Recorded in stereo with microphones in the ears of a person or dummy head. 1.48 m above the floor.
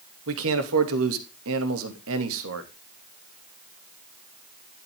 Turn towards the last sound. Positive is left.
turn(degrees=-75)  # may be behind; listen again after turning